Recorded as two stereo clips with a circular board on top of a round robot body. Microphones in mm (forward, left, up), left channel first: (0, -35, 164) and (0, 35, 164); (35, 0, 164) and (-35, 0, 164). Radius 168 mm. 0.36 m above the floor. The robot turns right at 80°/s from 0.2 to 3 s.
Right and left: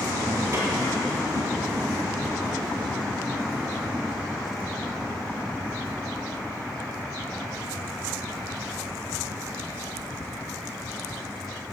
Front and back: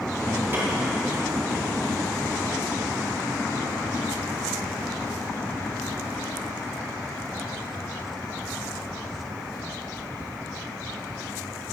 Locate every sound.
0.5 s a snare drum: 125° left, 3.5 m; by 0.7 s 140° left, 3.5 m